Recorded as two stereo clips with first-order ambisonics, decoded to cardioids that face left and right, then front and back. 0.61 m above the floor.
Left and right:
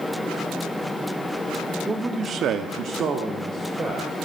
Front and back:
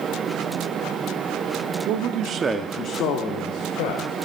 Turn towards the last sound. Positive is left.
turn(degrees=-15)